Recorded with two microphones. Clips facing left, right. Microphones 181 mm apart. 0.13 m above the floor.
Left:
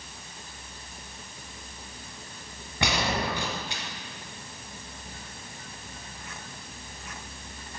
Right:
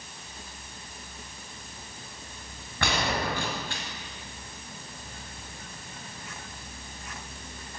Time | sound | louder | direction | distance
2.8 | a gunshot | left 1 dB | 15° left (ahead or behind) | 1.7 m